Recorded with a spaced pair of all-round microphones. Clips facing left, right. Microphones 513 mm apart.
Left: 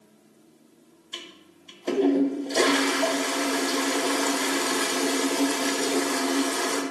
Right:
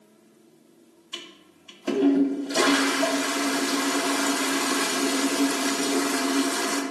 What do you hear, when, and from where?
1.1 s a toilet flushing: 30° right (ahead or behind), 0.8 m